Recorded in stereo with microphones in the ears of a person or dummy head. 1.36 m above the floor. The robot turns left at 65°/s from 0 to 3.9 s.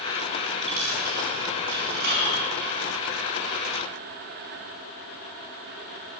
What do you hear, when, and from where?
0.7 s a dropped coin: 25° right (ahead or behind), 4.5 m; by 2.4 s 40° right (ahead or behind), 4.5 m